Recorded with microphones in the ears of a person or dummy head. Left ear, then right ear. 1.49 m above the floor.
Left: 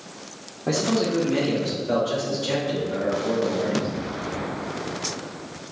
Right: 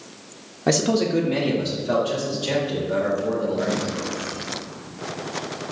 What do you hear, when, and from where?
0.7 s a man speaking: 60° right (ahead or behind), 0.5 m; by 3.9 s 15° right (ahead or behind), 3 m